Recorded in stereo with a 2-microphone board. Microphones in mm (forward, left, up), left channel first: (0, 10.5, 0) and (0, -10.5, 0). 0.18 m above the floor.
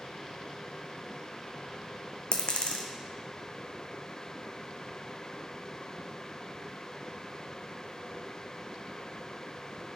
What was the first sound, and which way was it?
A dropped coin, 55° left (ahead or behind).